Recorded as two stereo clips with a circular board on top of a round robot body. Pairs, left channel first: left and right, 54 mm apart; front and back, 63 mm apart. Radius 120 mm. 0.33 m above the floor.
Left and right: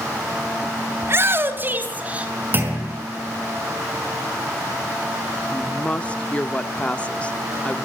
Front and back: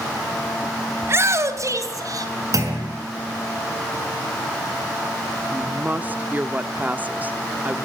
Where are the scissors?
I don't hear scissors.